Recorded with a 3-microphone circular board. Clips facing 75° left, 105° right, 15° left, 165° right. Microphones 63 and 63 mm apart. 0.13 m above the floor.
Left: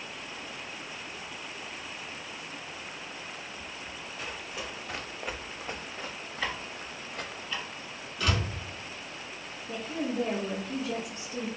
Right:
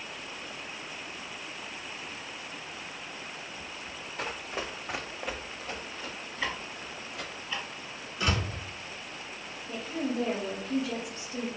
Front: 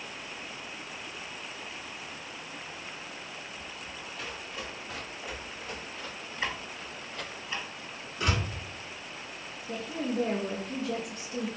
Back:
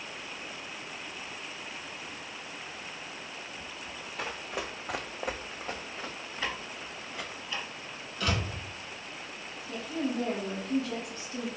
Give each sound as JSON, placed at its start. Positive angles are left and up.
{"t": 4.2, "sound": "running footsteps", "azimuth_deg": -135, "distance_m": 0.6}
{"t": 6.4, "sound": "ticking", "azimuth_deg": -25, "distance_m": 1.2}
{"t": 8.2, "sound": "a door slam", "azimuth_deg": -35, "distance_m": 1.3}
{"t": 9.7, "sound": "a woman speaking", "azimuth_deg": 55, "distance_m": 1.4}